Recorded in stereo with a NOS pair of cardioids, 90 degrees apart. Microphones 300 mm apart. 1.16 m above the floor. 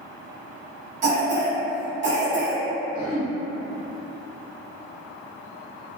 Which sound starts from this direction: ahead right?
A cough, at 1.0 s.